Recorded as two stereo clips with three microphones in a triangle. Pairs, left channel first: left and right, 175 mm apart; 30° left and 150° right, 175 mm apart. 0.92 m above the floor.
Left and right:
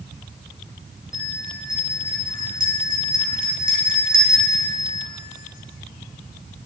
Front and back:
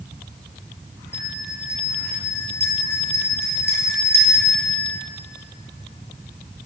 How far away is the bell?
About 9 m.